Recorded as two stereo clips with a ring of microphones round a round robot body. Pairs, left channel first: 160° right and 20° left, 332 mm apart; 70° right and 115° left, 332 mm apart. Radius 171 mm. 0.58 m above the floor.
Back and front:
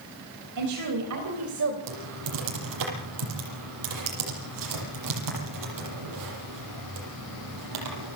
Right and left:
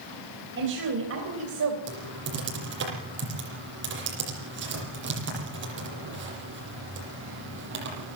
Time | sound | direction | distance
0.6 | a woman speaking | 55° left | 4 m
1.9 | typing on a keyboard | 55° left | 8 m